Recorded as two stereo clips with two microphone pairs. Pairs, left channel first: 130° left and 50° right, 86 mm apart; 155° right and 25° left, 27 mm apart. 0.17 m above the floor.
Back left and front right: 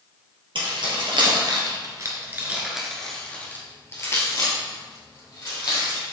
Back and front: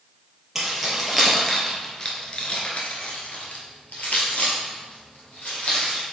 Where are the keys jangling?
60° right, 2.5 m; by 6.0 s 170° left, 4 m.